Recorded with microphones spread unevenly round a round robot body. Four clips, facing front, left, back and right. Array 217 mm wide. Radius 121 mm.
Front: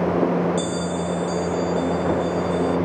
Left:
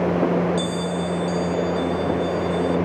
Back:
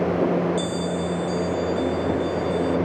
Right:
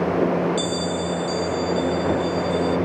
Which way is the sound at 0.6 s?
5° right.